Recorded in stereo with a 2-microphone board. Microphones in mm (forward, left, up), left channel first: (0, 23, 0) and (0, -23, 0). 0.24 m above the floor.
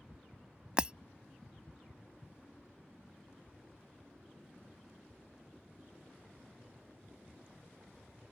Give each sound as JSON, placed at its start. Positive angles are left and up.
{"t": 0.8, "sound": "breaking glass", "side_deg": -25}